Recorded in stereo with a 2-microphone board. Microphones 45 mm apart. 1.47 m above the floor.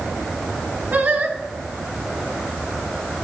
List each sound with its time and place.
0.9 s singing: 45° right (ahead or behind), 2.5 m